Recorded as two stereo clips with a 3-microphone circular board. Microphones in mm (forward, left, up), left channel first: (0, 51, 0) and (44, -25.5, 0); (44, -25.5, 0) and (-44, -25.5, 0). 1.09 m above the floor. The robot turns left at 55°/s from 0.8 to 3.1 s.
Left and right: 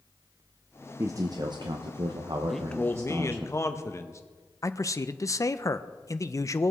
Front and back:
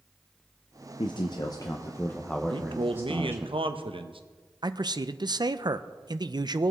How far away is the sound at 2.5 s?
About 0.8 m.